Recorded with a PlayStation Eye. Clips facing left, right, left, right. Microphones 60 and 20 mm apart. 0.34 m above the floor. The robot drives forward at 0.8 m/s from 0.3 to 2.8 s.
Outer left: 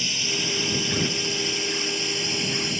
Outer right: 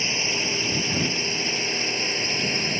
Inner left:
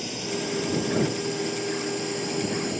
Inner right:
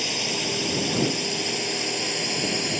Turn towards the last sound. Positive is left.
turn(degrees=-40)  # may be behind; listen again after turning